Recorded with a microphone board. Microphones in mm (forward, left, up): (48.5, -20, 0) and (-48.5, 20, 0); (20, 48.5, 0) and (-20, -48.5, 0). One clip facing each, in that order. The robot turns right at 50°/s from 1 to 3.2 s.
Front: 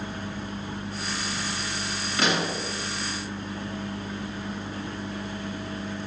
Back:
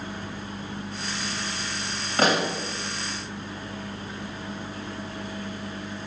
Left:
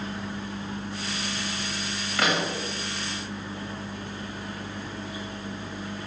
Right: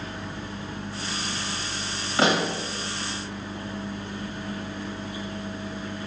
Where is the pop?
170° right, 1.2 m; by 2.6 s 150° right, 1.2 m.